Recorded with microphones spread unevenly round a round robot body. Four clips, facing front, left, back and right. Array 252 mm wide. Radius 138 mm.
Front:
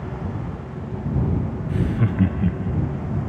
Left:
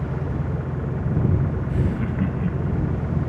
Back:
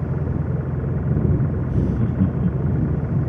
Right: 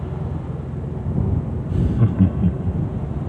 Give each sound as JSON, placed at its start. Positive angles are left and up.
{"t": 0.0, "sound": "an engine running", "azimuth_deg": 165}
{"t": 1.7, "sound": "laughter", "azimuth_deg": -85}